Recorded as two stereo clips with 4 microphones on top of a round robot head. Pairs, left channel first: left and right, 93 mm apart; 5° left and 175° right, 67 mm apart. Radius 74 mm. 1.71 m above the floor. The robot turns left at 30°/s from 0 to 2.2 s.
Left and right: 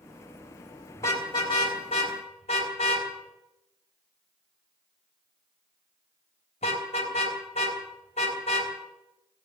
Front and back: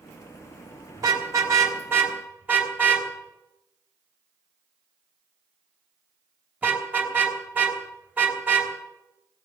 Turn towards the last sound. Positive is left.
turn(degrees=120)